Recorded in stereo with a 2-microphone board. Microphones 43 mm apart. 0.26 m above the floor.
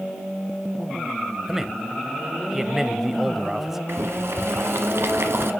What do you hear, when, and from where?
1.5 s a man speaking: 10° right (ahead or behind), 0.9 m
3.9 s boiling: 75° right (ahead or behind), 1.4 m